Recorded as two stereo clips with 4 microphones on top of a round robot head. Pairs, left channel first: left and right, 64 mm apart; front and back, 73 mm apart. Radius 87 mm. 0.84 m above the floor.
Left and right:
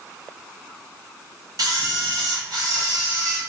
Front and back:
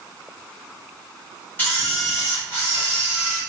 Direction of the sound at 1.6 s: 70° right.